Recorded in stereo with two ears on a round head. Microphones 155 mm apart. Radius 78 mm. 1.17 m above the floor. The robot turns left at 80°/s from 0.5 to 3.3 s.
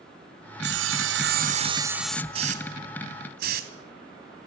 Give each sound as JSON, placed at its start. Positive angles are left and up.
{"t": 0.6, "sound": "sawing", "azimuth_deg": -65, "distance_m": 1.0}
{"t": 2.3, "sound": "a hiss", "side_deg": -30, "distance_m": 2.0}